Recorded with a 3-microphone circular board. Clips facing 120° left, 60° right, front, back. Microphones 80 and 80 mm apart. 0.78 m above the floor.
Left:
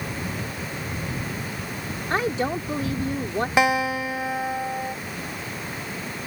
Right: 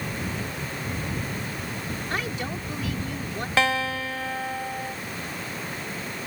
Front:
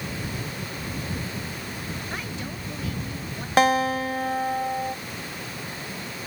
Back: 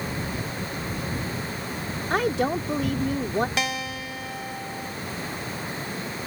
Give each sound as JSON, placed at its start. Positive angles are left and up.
{"t": 2.1, "sound": "a woman speaking", "azimuth_deg": 175}
{"t": 3.6, "sound": "a guitar", "azimuth_deg": 45}